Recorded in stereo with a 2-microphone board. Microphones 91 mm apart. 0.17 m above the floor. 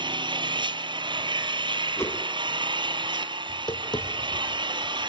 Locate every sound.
0.0 s an engine running: 60° right (ahead or behind), 1.2 m
2.0 s a whoosh: 30° left (ahead or behind), 1.3 m
3.5 s tapping: 55° left (ahead or behind), 2 m